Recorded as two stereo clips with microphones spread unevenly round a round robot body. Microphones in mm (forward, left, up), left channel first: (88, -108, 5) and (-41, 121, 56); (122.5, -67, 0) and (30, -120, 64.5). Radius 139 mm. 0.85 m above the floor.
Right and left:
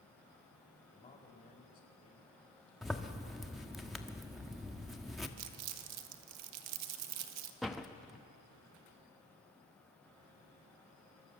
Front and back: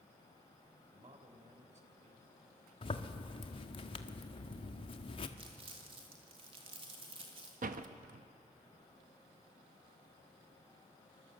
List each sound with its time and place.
0.9 s a man speaking: 130° right, 3.5 m
2.8 s a zipper: 25° left, 1.5 m
5.4 s crumpling: 140° left, 1.5 m
7.6 s a door slam: 145° right, 0.9 m